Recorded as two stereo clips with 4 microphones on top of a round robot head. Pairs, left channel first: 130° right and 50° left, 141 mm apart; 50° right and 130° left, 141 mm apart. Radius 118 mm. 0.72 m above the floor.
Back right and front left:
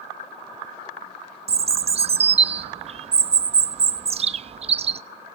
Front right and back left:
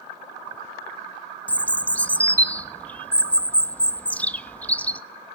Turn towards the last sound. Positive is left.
turn(degrees=25)